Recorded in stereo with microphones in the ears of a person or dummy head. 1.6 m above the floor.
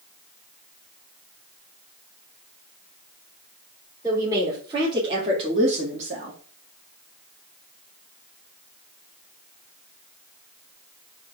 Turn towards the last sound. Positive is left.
turn(degrees=-45)  # may be behind; listen again after turning